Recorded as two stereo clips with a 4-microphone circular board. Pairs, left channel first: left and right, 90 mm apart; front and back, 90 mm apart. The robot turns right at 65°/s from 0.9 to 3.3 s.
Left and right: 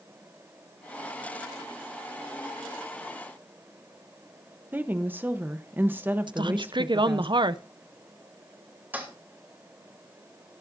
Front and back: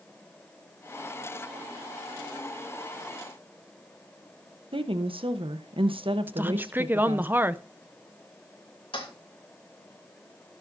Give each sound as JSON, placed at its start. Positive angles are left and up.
{"t": 4.7, "sound": "a woman speaking", "azimuth_deg": -160, "distance_m": 0.9}
{"t": 6.3, "sound": "a woman speaking", "azimuth_deg": -115, "distance_m": 0.5}
{"t": 8.9, "sound": "a toilet flushing", "azimuth_deg": -20, "distance_m": 2.5}